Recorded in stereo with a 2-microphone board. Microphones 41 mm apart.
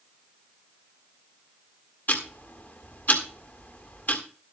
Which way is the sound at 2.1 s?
45° left (ahead or behind).